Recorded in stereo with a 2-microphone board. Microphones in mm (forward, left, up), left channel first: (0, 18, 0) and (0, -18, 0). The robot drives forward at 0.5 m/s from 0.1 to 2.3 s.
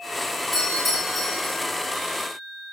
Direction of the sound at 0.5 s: 10° right (ahead or behind).